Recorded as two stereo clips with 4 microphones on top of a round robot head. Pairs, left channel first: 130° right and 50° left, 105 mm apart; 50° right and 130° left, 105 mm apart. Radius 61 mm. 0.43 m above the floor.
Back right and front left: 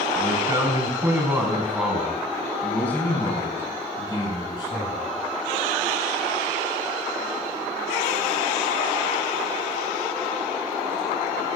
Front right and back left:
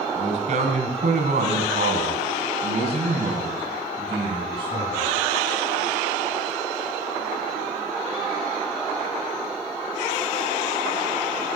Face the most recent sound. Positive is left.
turn(degrees=-175)